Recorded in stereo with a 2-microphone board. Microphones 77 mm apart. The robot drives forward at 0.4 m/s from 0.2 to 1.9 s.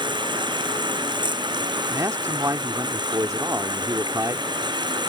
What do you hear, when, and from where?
0.0 s running water: 80° right; by 5.1 s 75° right (ahead or behind)
1.9 s a man speaking: 45° right (ahead or behind)